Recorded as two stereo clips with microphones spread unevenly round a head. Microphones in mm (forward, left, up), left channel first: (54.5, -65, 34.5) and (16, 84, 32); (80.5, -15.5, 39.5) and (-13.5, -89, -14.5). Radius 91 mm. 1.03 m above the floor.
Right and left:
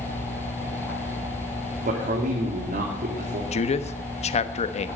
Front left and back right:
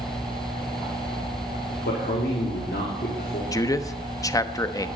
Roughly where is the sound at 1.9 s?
Left.